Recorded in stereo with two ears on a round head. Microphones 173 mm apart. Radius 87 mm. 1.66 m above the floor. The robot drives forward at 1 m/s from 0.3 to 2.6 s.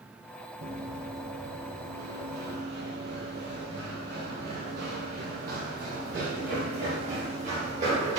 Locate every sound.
0.6 s running footsteps: 55° right (ahead or behind), 3 m; by 8.2 s 35° right (ahead or behind), 5 m